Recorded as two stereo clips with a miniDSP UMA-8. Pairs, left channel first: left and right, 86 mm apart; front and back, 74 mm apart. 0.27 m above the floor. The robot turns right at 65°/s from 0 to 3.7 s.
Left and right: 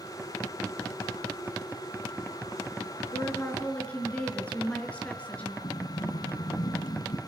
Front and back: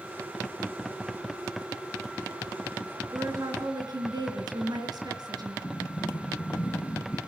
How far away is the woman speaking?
About 4.5 m.